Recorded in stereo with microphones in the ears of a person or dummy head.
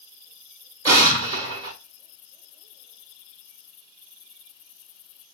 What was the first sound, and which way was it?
An explosion, 15° right (ahead or behind).